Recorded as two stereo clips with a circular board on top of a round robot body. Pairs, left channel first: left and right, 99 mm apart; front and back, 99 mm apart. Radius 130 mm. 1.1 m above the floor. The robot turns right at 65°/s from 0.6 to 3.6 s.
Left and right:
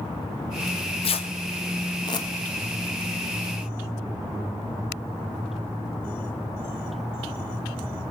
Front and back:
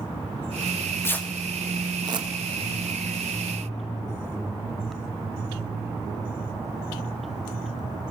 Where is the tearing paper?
40° left, 1.6 m; by 2.3 s 145° left, 1.6 m.